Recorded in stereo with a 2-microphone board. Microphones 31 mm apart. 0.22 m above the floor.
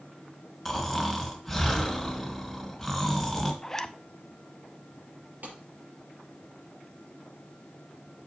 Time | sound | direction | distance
0.7 | snoring | 5° left (ahead or behind) | 2.5 m
3.6 | a zipper | 15° left (ahead or behind) | 0.5 m
5.4 | a clap | 65° right (ahead or behind) | 5 m